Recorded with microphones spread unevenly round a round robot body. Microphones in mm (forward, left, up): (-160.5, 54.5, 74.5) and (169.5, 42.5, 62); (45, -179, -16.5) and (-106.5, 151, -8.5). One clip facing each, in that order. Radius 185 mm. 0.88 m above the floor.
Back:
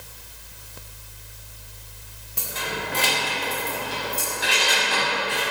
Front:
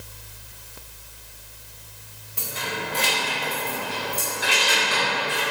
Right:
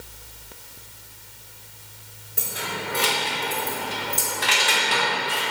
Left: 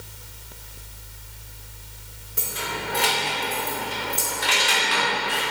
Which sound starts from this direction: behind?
Keys jangling, at 2.4 s.